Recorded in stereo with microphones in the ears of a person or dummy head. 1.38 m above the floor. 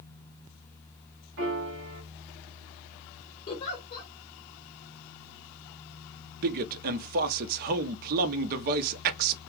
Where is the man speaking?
40° right (ahead or behind), 0.7 m.